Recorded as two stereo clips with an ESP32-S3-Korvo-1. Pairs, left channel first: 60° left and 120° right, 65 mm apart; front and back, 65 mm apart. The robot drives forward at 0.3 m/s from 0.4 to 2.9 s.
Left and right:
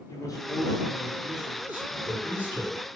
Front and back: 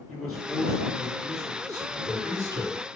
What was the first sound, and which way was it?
A man speaking, 90° left.